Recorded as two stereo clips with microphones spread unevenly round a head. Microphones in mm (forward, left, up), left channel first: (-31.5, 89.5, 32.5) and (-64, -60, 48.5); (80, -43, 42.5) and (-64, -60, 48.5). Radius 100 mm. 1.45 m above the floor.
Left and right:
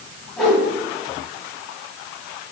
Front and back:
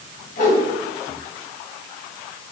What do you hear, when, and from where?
0.4 s a whoosh: 10° right, 1.9 m